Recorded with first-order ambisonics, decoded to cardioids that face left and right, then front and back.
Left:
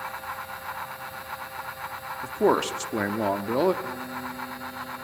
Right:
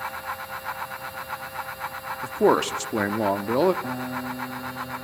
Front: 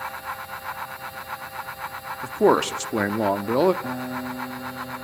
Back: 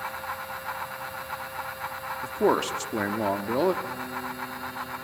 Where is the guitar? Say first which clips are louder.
Right 3 dB, front 3 dB; 45° right, 1.6 m.